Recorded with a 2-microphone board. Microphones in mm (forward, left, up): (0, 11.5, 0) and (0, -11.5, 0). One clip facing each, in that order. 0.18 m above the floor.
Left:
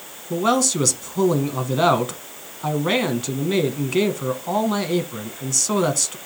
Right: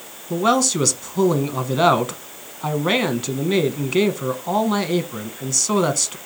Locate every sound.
0.3 s a man speaking: 10° right (ahead or behind), 1.3 m